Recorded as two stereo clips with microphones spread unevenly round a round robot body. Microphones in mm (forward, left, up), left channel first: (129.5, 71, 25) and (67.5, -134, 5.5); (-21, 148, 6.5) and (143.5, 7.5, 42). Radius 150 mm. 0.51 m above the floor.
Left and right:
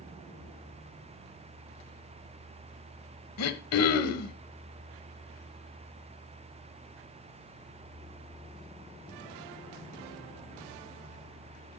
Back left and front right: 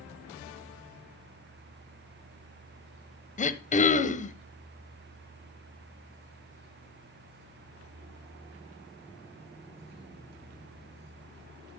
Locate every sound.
3.4 s throat clearing: 85° left, 1.3 m